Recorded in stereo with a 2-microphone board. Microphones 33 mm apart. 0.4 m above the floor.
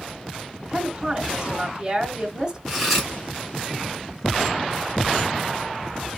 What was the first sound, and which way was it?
A woman speaking, 15° right (ahead or behind).